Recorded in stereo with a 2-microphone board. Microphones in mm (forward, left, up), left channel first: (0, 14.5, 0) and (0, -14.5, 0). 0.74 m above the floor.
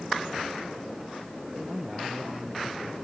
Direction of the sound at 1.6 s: 5° right (ahead or behind).